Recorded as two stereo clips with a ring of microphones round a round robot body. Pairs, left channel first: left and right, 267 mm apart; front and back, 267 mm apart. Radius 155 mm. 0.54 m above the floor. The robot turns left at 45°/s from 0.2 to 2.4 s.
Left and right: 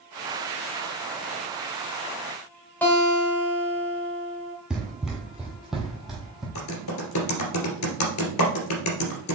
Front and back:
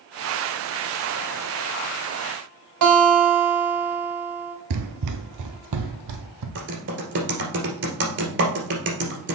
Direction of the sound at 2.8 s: 175° left.